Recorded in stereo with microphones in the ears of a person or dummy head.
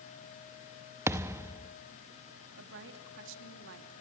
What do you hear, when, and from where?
1.1 s a thud: 10° right (ahead or behind), 0.7 m
2.6 s a woman speaking: 70° right (ahead or behind), 2.5 m